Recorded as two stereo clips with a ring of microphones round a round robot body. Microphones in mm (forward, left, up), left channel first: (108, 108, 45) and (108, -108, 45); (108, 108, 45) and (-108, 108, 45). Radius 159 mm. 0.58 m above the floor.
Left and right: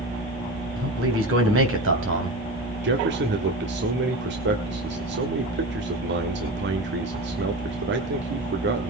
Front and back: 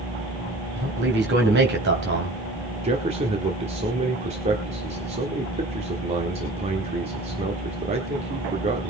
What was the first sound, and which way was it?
A man speaking, 130° right.